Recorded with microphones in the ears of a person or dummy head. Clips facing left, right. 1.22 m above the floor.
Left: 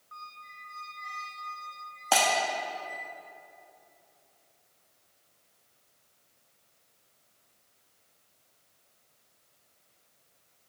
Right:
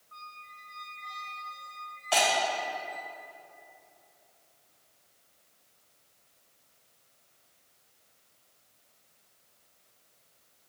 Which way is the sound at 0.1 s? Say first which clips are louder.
Left 1 dB; 55° left (ahead or behind).